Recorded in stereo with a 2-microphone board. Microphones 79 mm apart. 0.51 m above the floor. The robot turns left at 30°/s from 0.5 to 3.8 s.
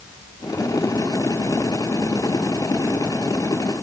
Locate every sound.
Only background noise.